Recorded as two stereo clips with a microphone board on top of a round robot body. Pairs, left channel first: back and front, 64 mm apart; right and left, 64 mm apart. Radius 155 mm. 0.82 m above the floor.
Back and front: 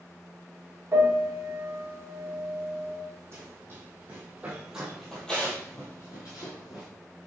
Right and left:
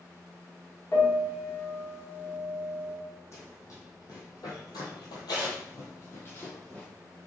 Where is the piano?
50° right, 2.5 m.